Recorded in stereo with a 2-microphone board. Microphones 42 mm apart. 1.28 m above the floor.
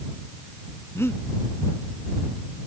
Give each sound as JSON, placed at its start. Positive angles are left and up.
{"t": 0.9, "sound": "breathing", "side_deg": 85}